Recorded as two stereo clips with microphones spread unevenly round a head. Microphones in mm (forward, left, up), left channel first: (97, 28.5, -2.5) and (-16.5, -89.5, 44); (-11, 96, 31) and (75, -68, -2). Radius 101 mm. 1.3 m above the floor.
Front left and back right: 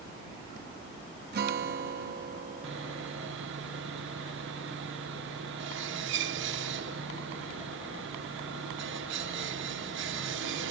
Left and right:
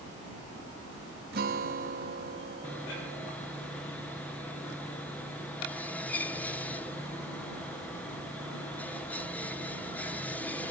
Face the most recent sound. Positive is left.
turn(degrees=-155)